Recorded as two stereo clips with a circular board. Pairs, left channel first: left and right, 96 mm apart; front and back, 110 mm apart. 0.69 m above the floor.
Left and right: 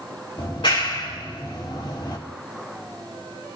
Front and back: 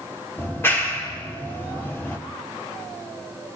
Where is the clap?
65° left, 1.9 m.